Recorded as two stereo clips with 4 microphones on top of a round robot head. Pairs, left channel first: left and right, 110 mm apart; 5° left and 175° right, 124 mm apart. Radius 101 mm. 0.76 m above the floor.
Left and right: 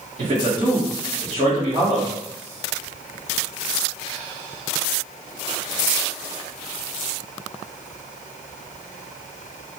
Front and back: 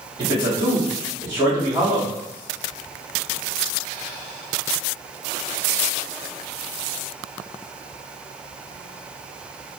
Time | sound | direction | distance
0.2 | a man speaking | 95° right | 1.1 m